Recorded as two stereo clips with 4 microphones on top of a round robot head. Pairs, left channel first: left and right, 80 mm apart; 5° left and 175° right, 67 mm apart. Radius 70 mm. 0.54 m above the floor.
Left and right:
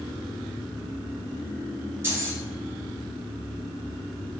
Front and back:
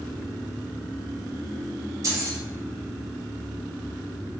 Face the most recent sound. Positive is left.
turn(degrees=-150)